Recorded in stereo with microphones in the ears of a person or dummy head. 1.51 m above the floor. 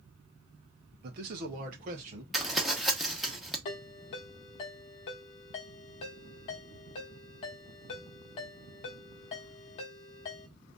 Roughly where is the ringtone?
Left.